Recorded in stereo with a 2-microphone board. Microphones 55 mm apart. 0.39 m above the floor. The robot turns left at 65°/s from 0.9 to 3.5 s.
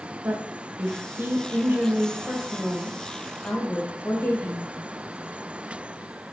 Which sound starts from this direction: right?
A woman speaking, at 0.2 s.